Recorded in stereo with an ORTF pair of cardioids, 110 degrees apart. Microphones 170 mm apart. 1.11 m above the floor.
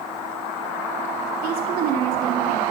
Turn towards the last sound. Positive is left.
turn(degrees=-65)